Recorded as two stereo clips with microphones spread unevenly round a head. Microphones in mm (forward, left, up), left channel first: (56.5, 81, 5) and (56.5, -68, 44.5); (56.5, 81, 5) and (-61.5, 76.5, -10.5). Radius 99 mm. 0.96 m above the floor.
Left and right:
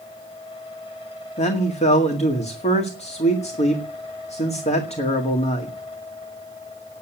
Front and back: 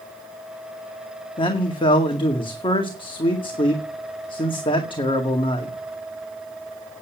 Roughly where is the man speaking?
Ahead left.